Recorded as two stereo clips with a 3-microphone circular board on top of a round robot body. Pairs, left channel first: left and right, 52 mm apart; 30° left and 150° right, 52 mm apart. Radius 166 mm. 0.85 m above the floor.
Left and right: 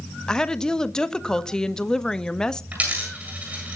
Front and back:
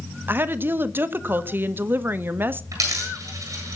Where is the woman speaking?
165° left, 1.2 m.